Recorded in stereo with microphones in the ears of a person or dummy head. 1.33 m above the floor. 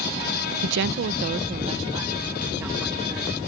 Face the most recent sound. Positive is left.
turn(degrees=-5)  # may be behind; listen again after turning